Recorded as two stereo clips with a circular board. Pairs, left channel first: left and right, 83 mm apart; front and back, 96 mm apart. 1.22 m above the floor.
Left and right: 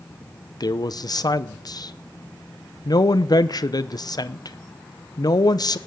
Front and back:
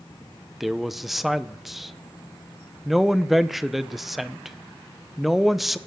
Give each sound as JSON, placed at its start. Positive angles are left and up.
{"t": 0.6, "sound": "a man speaking", "azimuth_deg": 90, "distance_m": 0.7}